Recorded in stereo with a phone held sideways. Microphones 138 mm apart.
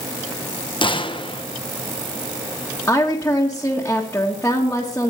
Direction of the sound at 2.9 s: 15° left (ahead or behind).